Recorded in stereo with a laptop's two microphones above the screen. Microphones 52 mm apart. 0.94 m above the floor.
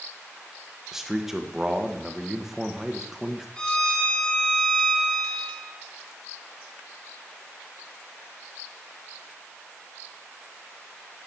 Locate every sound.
0.9 s a man speaking: 5° right (ahead or behind), 1.0 m
3.6 s a violin: 15° left (ahead or behind), 1.4 m